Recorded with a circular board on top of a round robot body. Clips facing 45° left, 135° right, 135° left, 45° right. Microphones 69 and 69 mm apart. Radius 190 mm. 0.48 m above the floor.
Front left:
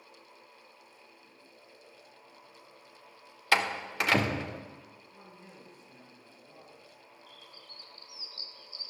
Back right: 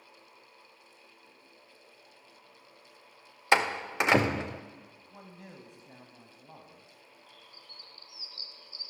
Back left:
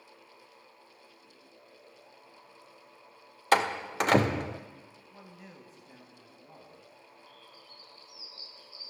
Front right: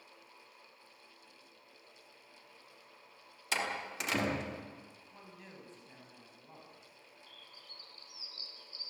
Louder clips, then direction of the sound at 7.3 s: Front left 1 dB, back left 4 dB; 75° right.